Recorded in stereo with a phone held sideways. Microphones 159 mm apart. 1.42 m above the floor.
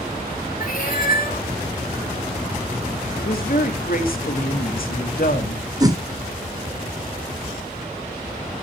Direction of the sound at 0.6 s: 65° left (ahead or behind).